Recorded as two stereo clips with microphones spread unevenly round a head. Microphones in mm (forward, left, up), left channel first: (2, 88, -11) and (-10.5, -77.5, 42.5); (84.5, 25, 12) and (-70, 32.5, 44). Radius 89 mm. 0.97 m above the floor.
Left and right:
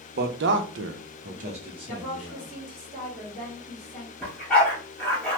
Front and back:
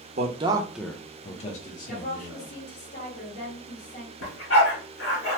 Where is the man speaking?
135° right, 0.7 m; by 2.5 s 15° right, 1.4 m.